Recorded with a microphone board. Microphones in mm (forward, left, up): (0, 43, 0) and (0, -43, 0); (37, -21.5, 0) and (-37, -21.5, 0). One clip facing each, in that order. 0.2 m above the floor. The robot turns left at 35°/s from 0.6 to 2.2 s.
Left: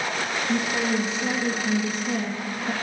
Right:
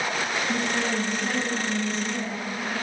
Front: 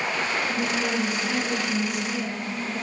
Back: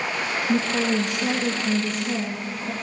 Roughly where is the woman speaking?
Behind.